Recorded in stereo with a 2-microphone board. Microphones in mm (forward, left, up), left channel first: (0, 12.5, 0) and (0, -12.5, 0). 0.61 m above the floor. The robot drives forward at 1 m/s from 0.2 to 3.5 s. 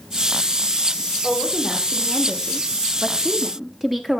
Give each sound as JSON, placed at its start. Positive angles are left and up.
{"t": 1.2, "sound": "a woman speaking", "side_deg": -5, "distance_m": 1.8}